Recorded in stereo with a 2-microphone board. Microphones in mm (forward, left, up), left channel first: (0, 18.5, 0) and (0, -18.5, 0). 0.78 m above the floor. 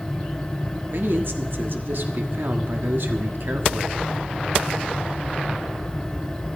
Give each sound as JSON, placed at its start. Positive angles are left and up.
{"t": 0.9, "sound": "a man speaking", "side_deg": -65, "distance_m": 1.3}